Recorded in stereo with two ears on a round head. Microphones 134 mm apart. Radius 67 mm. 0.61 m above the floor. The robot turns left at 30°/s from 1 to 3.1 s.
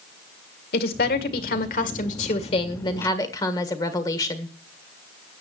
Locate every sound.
0.7 s a woman speaking: 90° left, 1.8 m; by 4.5 s 25° left, 1.8 m